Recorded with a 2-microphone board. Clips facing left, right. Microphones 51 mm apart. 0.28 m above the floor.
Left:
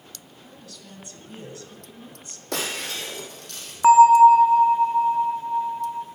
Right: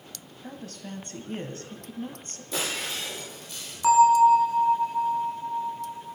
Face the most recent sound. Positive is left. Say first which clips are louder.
# left 6 dB
turn(degrees=35)  # may be behind; listen again after turning